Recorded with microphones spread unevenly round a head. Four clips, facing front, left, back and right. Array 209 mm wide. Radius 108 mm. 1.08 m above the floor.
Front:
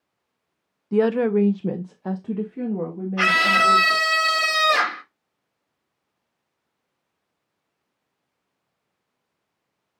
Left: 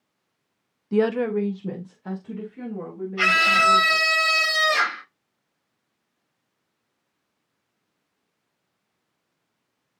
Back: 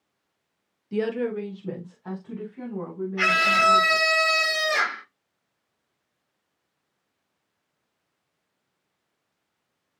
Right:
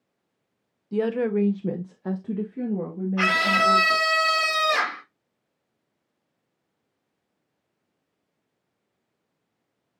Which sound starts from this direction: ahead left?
A woman speaking, at 0.9 s.